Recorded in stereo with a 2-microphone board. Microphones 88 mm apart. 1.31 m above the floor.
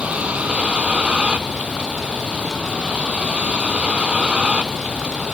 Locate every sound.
0.0 s a vehicle: 15° right (ahead or behind)